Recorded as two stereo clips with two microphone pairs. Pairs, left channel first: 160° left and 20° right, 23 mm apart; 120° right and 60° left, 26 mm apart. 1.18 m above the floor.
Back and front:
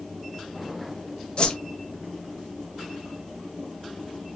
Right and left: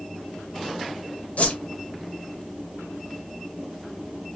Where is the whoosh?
150° right, 0.8 m.